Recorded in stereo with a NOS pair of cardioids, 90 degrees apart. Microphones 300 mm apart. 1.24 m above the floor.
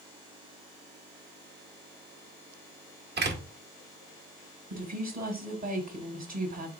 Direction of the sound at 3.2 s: 35° right.